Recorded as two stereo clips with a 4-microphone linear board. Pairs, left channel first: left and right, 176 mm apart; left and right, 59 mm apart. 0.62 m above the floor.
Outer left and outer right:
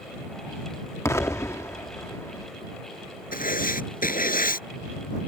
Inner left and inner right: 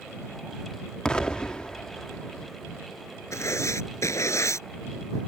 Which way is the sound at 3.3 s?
55° left (ahead or behind).